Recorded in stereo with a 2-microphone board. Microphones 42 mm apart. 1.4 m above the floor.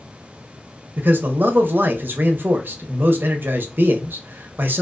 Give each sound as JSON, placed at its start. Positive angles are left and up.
{"t": 1.0, "sound": "a man speaking", "side_deg": -55, "distance_m": 0.6}